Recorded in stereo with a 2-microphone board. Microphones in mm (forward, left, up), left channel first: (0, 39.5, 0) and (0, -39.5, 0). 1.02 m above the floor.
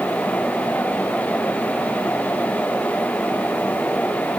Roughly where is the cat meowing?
I don't hear a cat meowing.